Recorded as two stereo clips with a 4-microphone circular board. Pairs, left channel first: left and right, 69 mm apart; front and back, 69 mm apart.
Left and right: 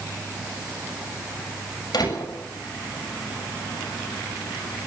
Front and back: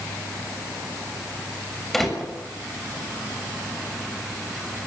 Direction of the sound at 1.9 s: 85° left.